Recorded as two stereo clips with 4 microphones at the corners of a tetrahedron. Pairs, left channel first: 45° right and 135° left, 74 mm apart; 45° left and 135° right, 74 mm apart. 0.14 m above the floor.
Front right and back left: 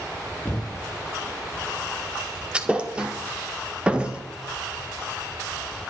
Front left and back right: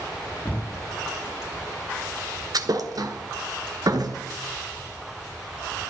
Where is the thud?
155° right, 1.3 m.